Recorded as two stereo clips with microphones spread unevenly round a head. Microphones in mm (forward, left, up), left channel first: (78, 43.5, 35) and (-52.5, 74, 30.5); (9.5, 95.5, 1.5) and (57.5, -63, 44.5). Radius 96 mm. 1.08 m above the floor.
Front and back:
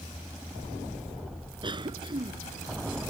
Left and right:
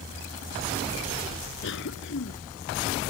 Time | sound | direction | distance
1.6 | a cough | 115° left | ?